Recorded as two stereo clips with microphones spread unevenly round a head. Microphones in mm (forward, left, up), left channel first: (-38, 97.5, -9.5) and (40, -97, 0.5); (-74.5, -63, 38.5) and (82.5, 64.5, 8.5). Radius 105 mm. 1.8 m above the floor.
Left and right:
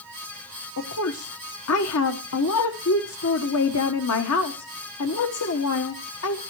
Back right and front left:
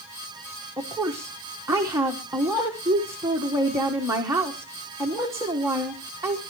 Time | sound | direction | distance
0.8 | a woman speaking | 120° left | 1.3 m